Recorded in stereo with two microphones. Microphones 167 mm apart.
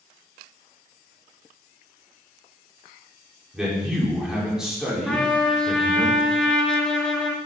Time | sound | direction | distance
3.5 | a man speaking | 5° right (ahead or behind) | 3 m
5.1 | a trumpet | 5° left (ahead or behind) | 1.2 m